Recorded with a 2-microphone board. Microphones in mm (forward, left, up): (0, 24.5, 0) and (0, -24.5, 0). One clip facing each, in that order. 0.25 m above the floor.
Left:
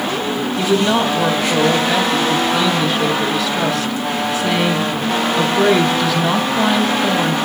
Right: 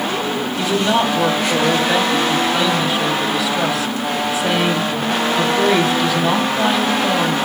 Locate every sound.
0.6 s a woman speaking: 5° right (ahead or behind), 1.0 m